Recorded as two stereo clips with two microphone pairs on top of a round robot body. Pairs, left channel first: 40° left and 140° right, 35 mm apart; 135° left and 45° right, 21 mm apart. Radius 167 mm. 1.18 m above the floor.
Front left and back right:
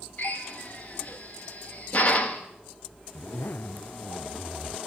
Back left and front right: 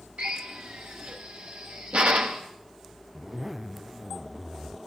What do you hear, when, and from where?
0.2 s a drill: 20° right, 0.6 m
3.1 s a zipper: 40° left, 0.5 m